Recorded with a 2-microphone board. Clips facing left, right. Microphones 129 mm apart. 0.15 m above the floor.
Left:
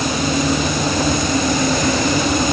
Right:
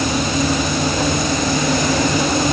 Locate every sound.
Only background noise.